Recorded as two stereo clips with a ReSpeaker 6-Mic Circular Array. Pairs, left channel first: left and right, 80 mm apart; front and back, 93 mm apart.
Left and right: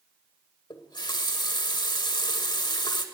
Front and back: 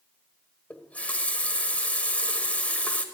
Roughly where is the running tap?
Left.